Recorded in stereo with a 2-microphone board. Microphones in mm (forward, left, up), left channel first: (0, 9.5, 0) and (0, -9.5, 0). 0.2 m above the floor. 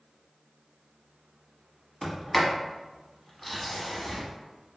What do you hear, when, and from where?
2.0 s a sliding door: 5° left (ahead or behind), 1.1 m